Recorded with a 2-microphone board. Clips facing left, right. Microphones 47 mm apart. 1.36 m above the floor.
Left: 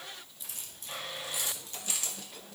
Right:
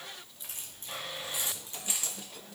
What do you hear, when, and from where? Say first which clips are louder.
0.4 s keys jangling: right 1 dB; 40° right (ahead or behind), 2 m; by 2.3 s 20° right (ahead or behind), 3 m